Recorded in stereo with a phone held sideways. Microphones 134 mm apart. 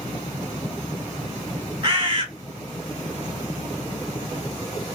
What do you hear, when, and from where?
1.8 s a bird: 35° right (ahead or behind), 1.2 m